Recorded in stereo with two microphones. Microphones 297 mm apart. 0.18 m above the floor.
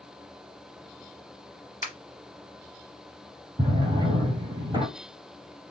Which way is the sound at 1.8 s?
30° left (ahead or behind).